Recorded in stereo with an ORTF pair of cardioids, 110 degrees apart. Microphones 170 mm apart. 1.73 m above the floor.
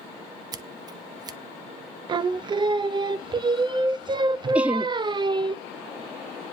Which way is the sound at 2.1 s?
30° right.